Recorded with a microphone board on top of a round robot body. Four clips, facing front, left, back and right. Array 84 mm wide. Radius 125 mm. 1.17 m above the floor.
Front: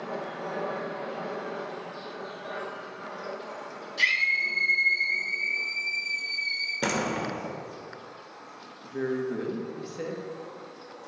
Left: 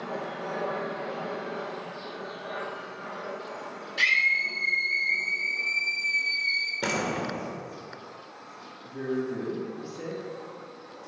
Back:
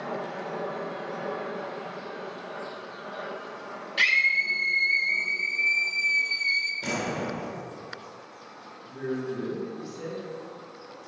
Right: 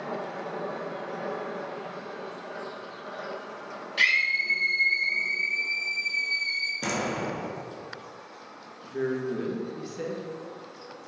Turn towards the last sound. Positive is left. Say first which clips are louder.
# right 1 dB, front 2 dB
turn(degrees=-35)